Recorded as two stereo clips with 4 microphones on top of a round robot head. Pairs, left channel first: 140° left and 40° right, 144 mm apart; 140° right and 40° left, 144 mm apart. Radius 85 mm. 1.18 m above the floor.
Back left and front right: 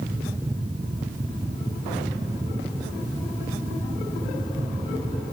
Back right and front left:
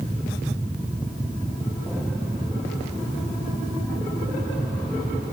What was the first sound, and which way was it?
Only background noise.